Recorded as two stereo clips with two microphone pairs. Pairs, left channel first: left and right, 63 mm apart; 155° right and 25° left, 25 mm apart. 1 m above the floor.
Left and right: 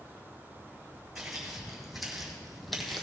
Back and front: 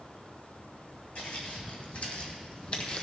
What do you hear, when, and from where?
1.1 s footsteps: 175° right, 2.5 m; by 3.0 s 175° left, 1.3 m